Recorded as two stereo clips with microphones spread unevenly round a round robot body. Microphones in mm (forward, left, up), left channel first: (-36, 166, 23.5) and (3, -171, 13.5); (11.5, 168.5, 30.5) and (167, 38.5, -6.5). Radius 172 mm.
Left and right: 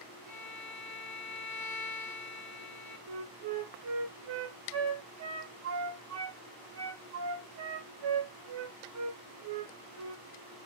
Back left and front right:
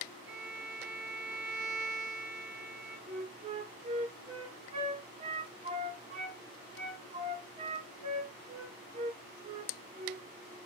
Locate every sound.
0.3 s a violin: 20° right, 1.2 m
3.1 s a flute: 70° right, 0.7 m